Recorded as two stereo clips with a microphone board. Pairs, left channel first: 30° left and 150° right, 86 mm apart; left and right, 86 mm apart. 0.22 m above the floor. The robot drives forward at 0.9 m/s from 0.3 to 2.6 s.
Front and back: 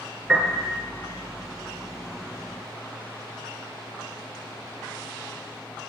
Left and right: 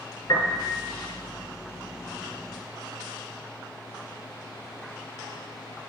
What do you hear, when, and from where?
0.3 s a piano: 120° left, 3 m; by 0.8 s 125° left, 3.5 m